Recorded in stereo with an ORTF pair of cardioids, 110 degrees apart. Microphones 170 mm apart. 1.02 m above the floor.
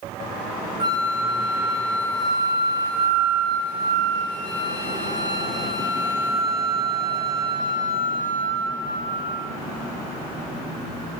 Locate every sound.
0.8 s a flute: 25° right, 2 m